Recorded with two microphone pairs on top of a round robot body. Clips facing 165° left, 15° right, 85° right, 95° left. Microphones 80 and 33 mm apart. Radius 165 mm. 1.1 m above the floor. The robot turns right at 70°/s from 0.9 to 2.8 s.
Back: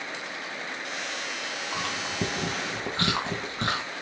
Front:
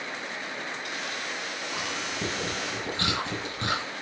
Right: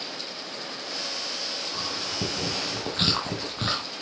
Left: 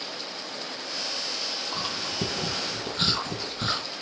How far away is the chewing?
About 1.8 m.